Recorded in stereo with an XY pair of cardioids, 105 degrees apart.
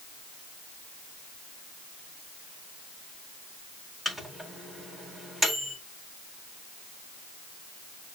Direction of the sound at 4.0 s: 10° right.